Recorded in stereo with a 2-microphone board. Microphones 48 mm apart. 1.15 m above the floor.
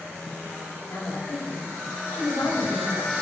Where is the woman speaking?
60° left (ahead or behind), 2.5 m.